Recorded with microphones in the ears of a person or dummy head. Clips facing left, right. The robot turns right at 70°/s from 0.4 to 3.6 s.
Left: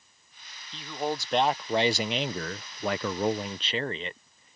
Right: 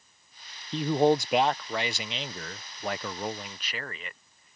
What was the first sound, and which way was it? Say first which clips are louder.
A man speaking: right 9 dB; 50° right.